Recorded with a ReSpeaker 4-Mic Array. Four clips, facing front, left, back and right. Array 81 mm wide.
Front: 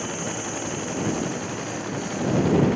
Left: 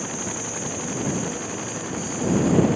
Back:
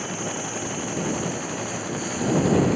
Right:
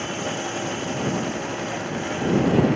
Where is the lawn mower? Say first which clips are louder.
Right 3 dB, even; 90° right; by 2.8 s 100° right.